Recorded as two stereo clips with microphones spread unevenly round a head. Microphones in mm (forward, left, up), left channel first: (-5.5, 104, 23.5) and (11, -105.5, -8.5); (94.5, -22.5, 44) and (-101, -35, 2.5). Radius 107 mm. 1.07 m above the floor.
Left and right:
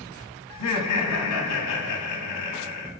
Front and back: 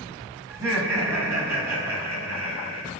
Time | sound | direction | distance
0.5 | laughter | 105° left | 1.9 m